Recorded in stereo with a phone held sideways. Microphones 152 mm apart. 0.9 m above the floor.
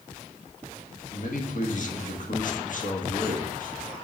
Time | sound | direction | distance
1.1 | a man speaking | 60° left (ahead or behind) | 1.4 m